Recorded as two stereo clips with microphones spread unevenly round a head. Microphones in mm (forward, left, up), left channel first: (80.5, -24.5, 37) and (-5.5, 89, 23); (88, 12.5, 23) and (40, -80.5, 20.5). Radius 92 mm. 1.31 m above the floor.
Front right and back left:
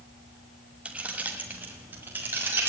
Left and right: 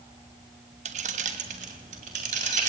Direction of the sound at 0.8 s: 145° right.